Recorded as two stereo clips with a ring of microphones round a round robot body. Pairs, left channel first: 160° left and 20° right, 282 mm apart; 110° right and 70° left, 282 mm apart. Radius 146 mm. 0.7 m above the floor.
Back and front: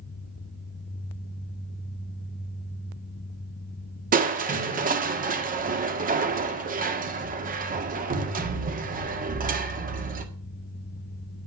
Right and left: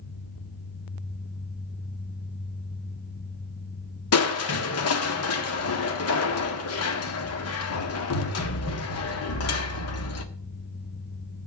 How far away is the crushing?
About 1.6 m.